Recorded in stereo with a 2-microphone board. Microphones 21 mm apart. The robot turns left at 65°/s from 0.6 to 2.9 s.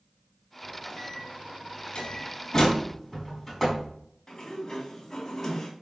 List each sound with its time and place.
0.6 s a microwave: 165° left, 2 m; by 2.3 s 60° left, 2 m
1.9 s a door slam: 60° left (ahead or behind), 5 m; by 3.9 s centre (ahead or behind), 5 m
4.3 s a sliding door: 20° left (ahead or behind), 2.5 m